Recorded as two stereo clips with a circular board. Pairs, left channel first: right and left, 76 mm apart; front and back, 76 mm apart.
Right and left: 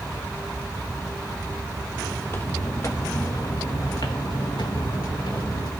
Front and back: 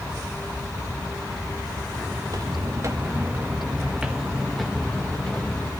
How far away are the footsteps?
About 1.3 m.